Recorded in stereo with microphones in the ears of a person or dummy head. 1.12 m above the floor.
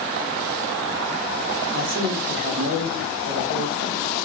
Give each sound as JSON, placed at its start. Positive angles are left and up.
{"t": 1.7, "sound": "a man speaking", "side_deg": -80, "distance_m": 2.5}